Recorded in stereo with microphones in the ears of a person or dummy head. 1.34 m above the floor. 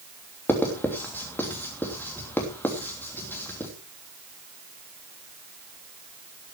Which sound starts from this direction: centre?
Writing, at 0.5 s.